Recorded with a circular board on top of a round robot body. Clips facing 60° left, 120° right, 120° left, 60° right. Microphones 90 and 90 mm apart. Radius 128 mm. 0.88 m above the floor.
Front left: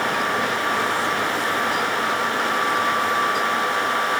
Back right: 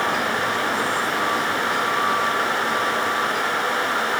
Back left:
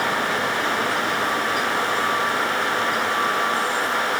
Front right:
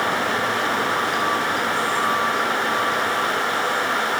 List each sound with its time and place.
Only background noise.